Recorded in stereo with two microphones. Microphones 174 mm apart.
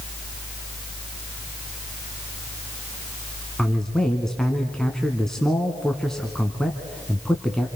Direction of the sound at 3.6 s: 5° left (ahead or behind).